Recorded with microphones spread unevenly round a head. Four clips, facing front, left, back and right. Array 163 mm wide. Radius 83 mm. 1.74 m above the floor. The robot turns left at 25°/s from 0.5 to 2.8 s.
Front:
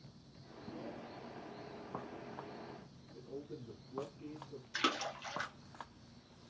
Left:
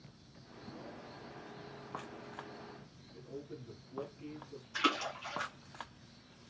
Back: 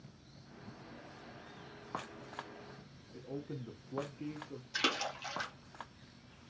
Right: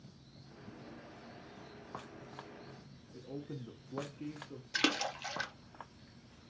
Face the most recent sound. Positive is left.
turn(degrees=-95)